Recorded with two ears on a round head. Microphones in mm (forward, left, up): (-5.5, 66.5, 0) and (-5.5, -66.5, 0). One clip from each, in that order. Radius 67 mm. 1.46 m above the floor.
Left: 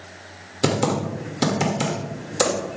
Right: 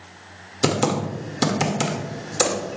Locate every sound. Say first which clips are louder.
0.6 s typing on a keyboard: even; 15° right (ahead or behind), 1.7 m